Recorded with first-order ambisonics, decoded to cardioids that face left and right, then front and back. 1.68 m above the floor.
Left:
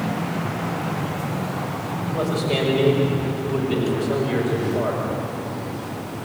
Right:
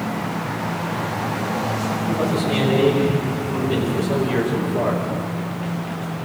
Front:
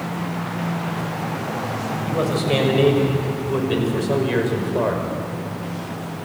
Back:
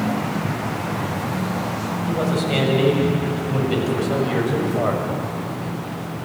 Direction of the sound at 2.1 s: 15° left.